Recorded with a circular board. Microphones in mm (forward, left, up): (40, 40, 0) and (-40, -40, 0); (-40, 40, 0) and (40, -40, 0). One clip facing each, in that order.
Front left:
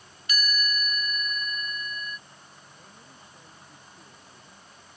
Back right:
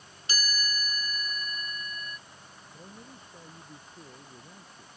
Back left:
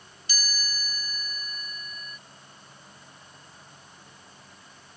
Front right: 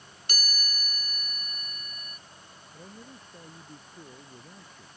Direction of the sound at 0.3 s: 75° right.